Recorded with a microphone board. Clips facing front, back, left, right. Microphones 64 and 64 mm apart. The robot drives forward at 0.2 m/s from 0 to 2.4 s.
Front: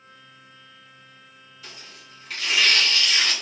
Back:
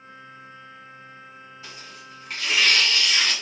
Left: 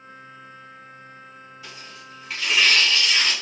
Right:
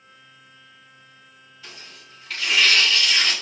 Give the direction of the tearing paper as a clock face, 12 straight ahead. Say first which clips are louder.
Front 1 dB, even; 6 o'clock.